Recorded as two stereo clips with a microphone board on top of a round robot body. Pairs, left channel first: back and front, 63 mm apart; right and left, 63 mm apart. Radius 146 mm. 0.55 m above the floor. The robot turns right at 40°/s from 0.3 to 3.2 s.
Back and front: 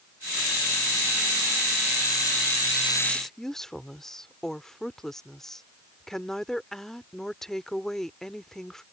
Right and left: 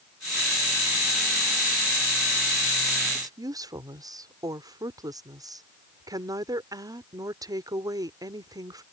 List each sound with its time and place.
3.1 s a woman speaking: 95° left